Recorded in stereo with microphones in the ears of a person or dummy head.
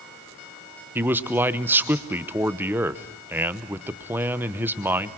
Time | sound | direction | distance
0.9 | a man speaking | 10° right (ahead or behind) | 0.9 m